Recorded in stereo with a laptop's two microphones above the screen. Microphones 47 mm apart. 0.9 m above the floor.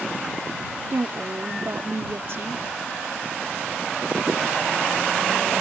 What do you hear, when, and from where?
0.9 s a woman speaking: 60° right (ahead or behind)